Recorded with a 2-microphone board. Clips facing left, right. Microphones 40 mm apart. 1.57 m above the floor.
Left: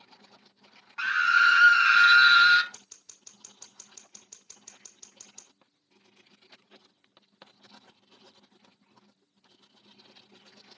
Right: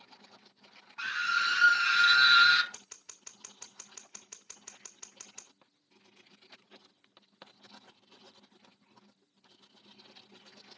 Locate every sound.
1.0 s a scream: 65° left (ahead or behind), 1.1 m; by 2.6 s 15° left (ahead or behind), 1.1 m
2.7 s scissors: 55° right (ahead or behind), 1.9 m